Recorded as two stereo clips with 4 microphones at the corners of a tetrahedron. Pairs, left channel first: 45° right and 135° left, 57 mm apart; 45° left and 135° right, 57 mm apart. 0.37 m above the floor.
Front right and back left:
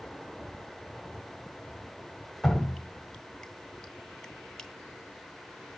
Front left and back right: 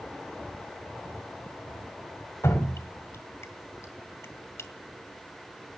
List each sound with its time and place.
2.4 s dripping: 40° left, 1.5 m